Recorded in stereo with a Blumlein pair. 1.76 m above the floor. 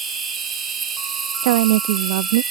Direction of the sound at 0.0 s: 15° right.